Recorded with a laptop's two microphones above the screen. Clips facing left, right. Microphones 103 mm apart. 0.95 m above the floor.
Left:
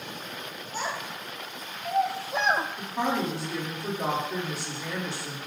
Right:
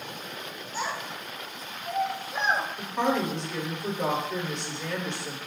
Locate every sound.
0.7 s a child speaking: 50° left (ahead or behind), 3 m; by 2.7 s 55° left (ahead or behind), 1.0 m
2.8 s a woman speaking: 10° left (ahead or behind), 2 m